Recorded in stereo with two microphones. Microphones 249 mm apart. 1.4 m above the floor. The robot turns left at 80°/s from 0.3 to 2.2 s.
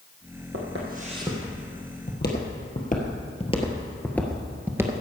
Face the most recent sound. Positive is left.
turn(degrees=-15)  # may be behind; listen again after turning